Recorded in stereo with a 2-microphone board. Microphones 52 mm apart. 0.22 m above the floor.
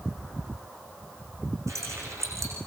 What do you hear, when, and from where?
1.7 s keys jangling: 85° right, 8.5 m